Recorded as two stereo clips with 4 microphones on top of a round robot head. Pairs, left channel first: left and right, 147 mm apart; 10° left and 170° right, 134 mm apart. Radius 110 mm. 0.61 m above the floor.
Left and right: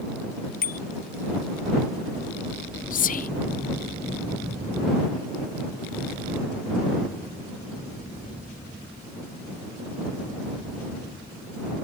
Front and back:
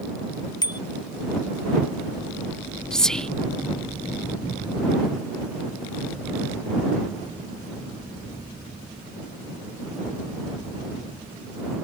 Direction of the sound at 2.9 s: 95° left.